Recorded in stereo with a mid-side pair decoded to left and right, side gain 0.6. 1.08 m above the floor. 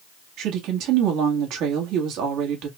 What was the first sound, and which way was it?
A woman speaking, 65° right.